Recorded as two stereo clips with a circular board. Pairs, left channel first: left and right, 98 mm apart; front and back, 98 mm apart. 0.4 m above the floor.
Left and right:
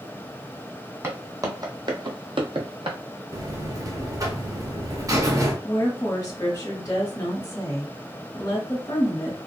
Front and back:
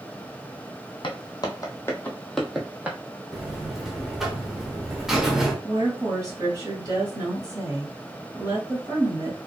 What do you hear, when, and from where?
1.0 s footsteps: 30° right, 0.9 m; by 3.0 s 110° right, 0.8 m
3.3 s a buzzer: 100° right, 0.7 m
5.6 s a woman speaking: 140° left, 1.6 m